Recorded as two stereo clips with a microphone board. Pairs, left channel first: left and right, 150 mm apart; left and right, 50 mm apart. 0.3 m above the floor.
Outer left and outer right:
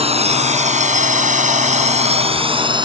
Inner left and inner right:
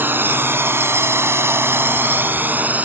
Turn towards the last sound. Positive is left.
turn(degrees=-30)  # may be behind; listen again after turning